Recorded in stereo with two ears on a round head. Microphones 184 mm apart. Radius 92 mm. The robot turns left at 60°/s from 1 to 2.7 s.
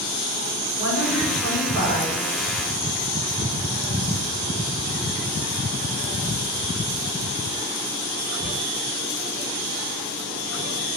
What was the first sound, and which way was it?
A woman speaking, 115° left.